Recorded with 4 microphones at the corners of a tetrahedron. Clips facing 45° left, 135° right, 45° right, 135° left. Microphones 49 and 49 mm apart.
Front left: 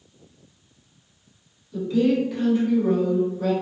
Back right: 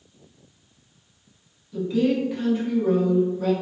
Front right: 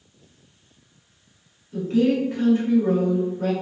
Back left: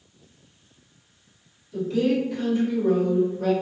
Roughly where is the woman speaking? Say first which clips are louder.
Front left 1 dB, front right 2 dB; ahead right.